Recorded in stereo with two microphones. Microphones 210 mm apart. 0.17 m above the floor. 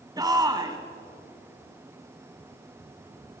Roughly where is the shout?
Centre.